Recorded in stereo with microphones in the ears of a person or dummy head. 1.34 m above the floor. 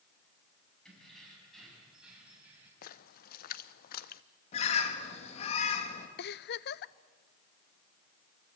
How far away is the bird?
About 2.5 m.